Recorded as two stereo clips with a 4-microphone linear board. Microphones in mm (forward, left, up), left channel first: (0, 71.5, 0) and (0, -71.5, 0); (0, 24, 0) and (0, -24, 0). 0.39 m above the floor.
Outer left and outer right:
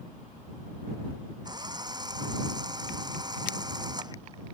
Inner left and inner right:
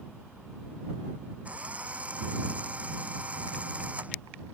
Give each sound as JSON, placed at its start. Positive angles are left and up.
{"t": 1.4, "sound": "a drill", "side_deg": -30}